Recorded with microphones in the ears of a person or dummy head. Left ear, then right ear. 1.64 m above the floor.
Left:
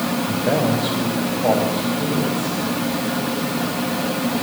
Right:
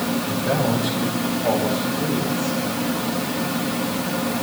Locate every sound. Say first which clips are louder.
0.2 s a man speaking: left 3 dB; 30° left (ahead or behind), 7.5 m; by 2.6 s 25° left (ahead or behind), 10 m